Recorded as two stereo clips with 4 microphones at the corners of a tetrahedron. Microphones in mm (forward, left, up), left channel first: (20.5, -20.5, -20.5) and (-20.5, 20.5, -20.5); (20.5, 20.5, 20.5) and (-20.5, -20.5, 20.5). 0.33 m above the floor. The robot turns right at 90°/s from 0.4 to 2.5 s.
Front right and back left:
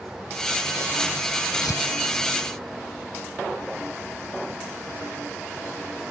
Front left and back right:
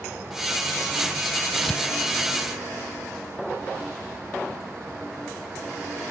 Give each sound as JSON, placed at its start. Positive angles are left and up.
{"t": 1.6, "sound": "tearing paper", "azimuth_deg": -50}